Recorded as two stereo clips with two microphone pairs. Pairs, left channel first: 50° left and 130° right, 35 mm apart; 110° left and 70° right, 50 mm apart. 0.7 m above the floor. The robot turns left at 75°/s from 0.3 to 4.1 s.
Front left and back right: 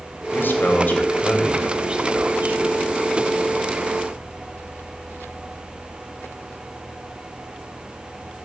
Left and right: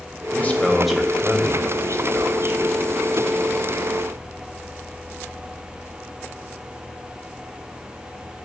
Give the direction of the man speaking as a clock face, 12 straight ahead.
10 o'clock.